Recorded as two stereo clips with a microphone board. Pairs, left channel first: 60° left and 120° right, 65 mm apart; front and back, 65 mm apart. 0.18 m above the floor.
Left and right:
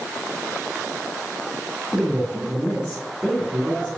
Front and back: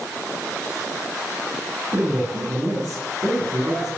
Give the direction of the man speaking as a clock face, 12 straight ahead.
7 o'clock.